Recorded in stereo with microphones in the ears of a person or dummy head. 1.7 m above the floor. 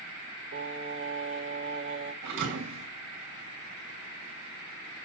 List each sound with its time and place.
0.5 s singing: 75° right (ahead or behind), 2.5 m
2.2 s a thud: 60° right (ahead or behind), 3 m